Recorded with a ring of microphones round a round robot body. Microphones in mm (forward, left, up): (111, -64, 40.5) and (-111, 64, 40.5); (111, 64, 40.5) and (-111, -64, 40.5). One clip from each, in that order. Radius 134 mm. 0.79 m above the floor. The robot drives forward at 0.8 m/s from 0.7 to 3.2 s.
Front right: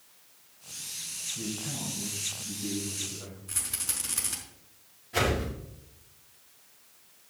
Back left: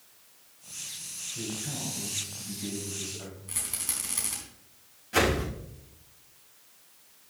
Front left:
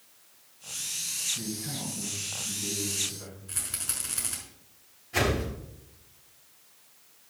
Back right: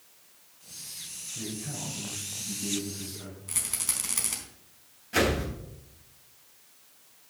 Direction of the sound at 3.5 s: 125° right.